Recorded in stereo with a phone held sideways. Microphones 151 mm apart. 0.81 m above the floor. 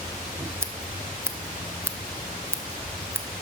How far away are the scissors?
About 0.6 m.